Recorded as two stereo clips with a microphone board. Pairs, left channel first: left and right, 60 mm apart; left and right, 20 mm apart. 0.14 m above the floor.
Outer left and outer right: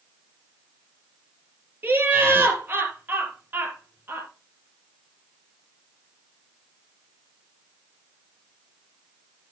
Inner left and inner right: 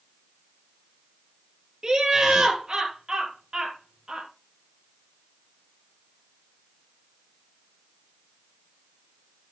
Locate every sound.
1.8 s laughter: 30° right (ahead or behind), 3.5 m